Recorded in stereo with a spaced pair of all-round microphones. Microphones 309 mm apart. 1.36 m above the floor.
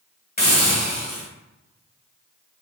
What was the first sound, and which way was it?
A hiss, 30° left (ahead or behind).